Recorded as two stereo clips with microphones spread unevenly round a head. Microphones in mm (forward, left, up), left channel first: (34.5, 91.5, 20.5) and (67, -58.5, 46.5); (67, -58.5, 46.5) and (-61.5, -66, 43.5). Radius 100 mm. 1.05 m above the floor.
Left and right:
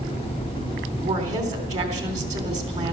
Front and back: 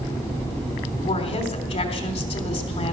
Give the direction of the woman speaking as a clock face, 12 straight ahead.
1 o'clock.